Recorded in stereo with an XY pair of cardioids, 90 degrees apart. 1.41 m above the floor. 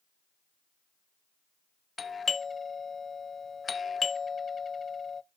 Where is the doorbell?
40° left, 0.5 m.